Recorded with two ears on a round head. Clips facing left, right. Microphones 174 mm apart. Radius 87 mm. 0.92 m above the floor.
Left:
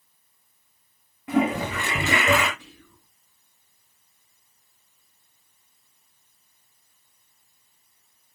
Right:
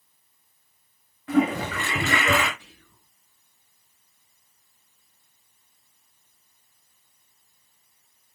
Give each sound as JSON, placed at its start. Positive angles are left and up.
{"t": 1.3, "sound": "a toilet flushing", "side_deg": 15, "distance_m": 6.5}
{"t": 2.6, "sound": "whispering", "side_deg": 75, "distance_m": 7.5}